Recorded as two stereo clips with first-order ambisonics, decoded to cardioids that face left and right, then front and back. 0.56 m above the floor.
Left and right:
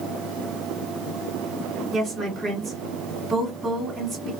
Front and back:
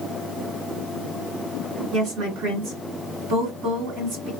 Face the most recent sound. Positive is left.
turn(degrees=-165)